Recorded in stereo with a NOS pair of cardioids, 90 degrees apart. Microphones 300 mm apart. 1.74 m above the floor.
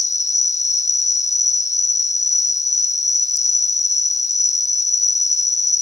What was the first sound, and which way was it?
An insect, 25° left.